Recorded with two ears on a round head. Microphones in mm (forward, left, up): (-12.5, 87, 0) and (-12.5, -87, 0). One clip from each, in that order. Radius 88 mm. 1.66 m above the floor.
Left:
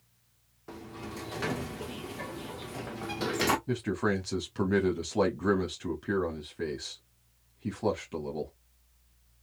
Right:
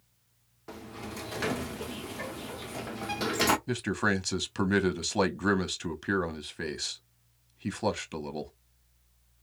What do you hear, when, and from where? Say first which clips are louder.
0.7 s a sliding door: right 1 dB; 20° right (ahead or behind), 0.7 m
3.7 s a man speaking: right 1 dB; 65° right (ahead or behind), 1.2 m